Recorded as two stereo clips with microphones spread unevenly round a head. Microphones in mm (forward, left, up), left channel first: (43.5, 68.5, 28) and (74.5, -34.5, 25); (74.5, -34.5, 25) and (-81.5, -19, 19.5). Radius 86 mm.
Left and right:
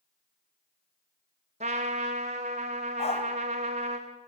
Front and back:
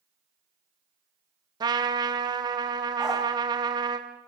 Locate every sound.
1.6 s a trumpet: 120° right, 1.9 m
3.0 s a dog barking: 85° left, 3.5 m